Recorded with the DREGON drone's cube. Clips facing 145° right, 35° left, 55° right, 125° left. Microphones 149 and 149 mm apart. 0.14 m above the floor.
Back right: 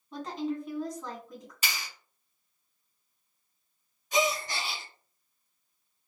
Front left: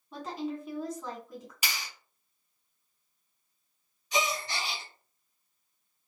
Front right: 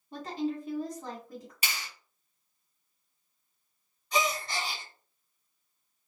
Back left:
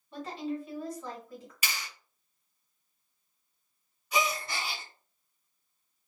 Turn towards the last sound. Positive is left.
turn(degrees=-155)